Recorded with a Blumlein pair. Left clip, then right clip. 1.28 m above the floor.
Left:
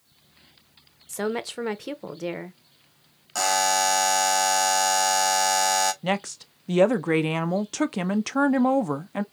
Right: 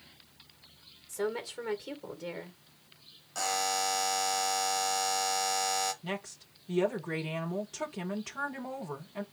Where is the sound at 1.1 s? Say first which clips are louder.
Left 6 dB; 25° left, 0.9 m.